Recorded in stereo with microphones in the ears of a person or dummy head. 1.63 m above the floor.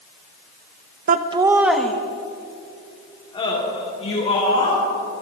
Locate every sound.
1.1 s laughter: 45° right (ahead or behind), 0.7 m; by 4.8 s 30° left (ahead or behind), 3.5 m